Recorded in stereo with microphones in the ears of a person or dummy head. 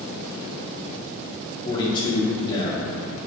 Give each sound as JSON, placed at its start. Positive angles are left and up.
{"t": 1.6, "sound": "a man speaking", "side_deg": 25, "distance_m": 1.3}